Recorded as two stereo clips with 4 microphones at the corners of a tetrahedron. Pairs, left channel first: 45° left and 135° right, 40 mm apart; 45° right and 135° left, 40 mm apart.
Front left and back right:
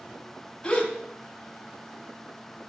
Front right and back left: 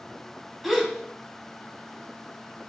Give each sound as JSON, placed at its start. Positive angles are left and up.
{"t": 0.6, "sound": "a gasp", "azimuth_deg": 40, "distance_m": 0.7}